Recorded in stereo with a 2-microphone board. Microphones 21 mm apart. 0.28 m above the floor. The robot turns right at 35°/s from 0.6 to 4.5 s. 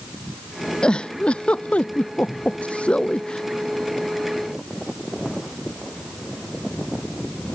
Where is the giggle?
40° left (ahead or behind); by 3.4 s 50° left (ahead or behind).